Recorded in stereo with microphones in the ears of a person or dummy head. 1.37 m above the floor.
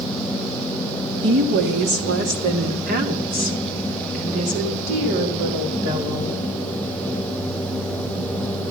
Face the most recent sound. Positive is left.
turn(degrees=-40)  # may be behind; listen again after turning